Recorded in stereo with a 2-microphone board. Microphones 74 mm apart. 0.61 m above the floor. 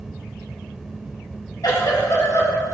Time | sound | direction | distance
1.6 | a giggle | 60° left (ahead or behind) | 2 m